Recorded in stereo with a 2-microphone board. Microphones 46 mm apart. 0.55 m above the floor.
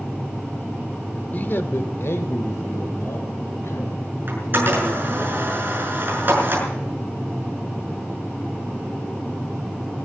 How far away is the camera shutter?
About 6 m.